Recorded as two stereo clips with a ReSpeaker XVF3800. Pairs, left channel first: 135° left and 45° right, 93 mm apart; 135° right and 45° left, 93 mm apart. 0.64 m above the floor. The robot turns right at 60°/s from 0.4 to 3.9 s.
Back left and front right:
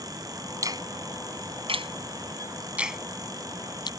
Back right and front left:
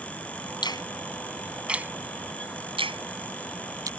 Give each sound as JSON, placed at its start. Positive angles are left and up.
{"t": 0.6, "sound": "a finger snap", "azimuth_deg": -100}